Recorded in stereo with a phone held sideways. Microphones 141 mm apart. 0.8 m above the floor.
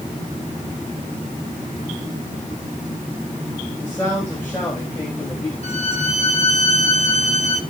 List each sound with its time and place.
3.8 s a man speaking: 15° left (ahead or behind), 4.5 m
5.6 s a violin: 50° left (ahead or behind), 1.5 m